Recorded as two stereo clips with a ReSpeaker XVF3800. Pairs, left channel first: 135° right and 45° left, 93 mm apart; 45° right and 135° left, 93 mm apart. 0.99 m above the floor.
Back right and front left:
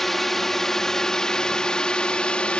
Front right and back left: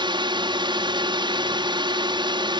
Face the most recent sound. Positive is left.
turn(degrees=150)